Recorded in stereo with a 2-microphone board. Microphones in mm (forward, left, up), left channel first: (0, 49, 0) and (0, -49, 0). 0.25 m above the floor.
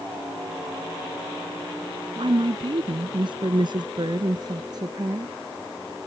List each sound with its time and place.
2.2 s a woman speaking: 60° right (ahead or behind); by 5.3 s 40° right (ahead or behind)